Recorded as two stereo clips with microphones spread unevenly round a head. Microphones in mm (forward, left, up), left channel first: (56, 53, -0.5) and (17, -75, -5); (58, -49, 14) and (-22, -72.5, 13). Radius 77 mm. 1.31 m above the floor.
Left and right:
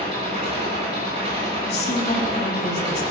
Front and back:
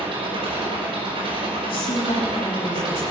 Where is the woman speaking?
35° left, 3 m.